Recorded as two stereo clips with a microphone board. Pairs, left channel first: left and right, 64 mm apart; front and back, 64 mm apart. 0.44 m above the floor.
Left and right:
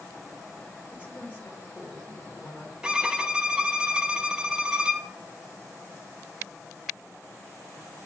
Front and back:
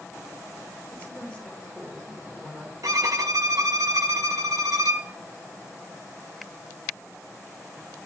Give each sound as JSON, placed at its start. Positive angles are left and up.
{"t": 0.9, "sound": "a woman speaking", "azimuth_deg": 55, "distance_m": 1.2}
{"t": 2.8, "sound": "a violin", "azimuth_deg": -165, "distance_m": 0.5}